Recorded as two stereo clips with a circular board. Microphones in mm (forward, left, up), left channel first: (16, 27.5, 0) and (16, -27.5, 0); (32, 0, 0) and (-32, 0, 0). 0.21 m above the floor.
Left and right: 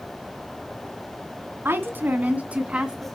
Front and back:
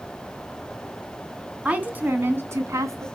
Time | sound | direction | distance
1.6 | a woman speaking | 115° right | 2 m